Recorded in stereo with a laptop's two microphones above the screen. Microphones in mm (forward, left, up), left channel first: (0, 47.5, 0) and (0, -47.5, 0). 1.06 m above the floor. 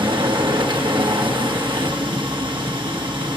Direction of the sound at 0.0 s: 55° right (ahead or behind).